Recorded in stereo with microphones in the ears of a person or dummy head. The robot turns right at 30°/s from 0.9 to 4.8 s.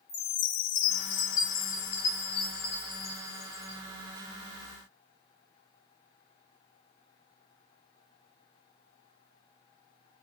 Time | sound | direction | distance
0.1 | a chime | 75° left | 0.6 m